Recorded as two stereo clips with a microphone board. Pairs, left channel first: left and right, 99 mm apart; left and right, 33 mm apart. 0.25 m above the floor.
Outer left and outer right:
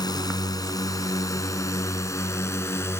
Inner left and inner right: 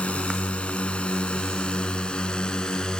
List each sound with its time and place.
0.0 s a drone: 45° left (ahead or behind); by 3.0 s 25° left (ahead or behind)